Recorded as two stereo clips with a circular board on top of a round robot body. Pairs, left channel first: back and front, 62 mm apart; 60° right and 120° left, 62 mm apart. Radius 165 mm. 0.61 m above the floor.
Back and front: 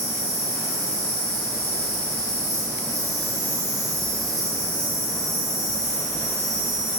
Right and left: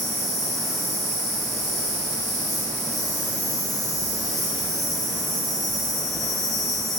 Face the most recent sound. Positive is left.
turn(degrees=30)